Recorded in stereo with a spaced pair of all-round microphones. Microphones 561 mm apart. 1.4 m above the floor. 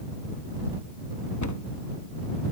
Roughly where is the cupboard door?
Left.